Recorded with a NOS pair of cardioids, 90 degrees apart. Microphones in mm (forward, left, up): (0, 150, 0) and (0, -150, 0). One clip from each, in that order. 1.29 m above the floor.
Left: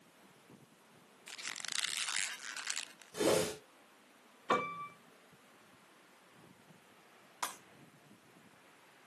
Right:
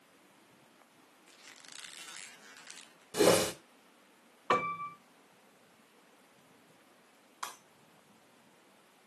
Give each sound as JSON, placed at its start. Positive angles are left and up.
{"t": 1.3, "sound": "a squeak", "azimuth_deg": 55, "distance_m": 0.6}
{"t": 3.1, "sound": "a whoosh", "azimuth_deg": -55, "distance_m": 2.5}
{"t": 4.5, "sound": "a piano", "azimuth_deg": -15, "distance_m": 2.0}
{"t": 7.4, "sound": "breaking glass", "azimuth_deg": 50, "distance_m": 4.5}